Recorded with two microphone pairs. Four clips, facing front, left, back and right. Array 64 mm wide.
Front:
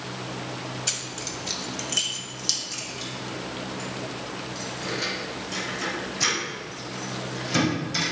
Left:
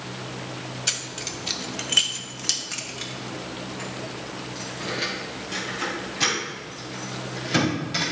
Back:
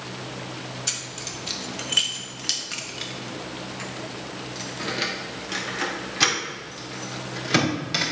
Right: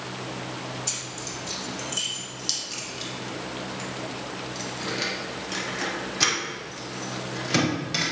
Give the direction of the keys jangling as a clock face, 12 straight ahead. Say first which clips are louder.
Left 3 dB, front 1 dB; 9 o'clock.